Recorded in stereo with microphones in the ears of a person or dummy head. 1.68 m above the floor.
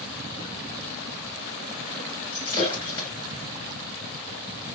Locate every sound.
2.3 s breaking glass: 20° left (ahead or behind), 3.5 m